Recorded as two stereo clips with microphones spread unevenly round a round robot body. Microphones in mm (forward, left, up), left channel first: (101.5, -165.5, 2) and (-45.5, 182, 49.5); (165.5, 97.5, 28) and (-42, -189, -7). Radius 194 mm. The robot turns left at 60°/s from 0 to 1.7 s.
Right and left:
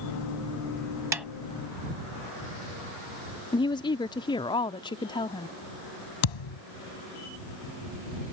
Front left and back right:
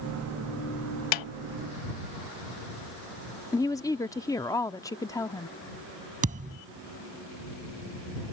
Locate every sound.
1.1 s a snare drum: 30° left; by 1.3 s 25° left
3.5 s a woman speaking: 25° right
6.2 s a thud: 55° right